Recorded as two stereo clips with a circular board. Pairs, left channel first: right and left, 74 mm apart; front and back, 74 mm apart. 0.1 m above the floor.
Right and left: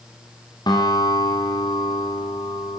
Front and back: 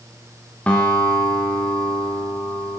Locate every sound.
0.7 s a guitar: 75° right, 8 m